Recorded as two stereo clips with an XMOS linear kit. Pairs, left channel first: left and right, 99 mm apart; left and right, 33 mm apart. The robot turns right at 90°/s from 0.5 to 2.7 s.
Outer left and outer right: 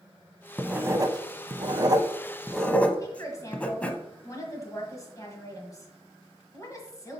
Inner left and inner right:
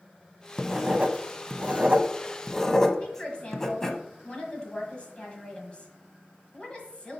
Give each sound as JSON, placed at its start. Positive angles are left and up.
{"t": 0.6, "sound": "writing", "side_deg": -5, "distance_m": 0.6}
{"t": 3.0, "sound": "a woman speaking", "side_deg": 30, "distance_m": 1.5}